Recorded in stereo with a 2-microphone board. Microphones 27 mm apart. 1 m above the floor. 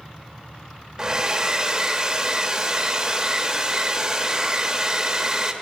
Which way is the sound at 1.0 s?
20° right (ahead or behind).